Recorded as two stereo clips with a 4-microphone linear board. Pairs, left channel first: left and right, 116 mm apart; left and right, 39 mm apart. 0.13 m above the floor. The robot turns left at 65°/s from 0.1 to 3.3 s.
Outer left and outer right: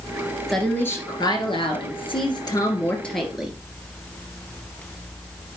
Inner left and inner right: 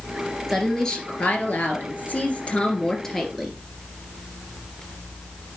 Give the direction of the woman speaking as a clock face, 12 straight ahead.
6 o'clock.